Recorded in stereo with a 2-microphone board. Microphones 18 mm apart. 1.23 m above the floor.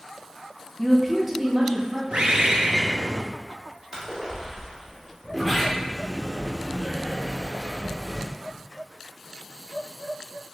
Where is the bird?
65° right (ahead or behind), 0.6 m.